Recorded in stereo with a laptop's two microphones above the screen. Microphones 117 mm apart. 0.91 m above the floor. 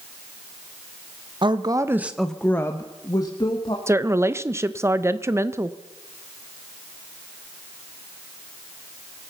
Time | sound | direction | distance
1.4 | a woman speaking | 45° right (ahead or behind) | 1.1 m
3.9 | a woman speaking | 25° right (ahead or behind) | 0.6 m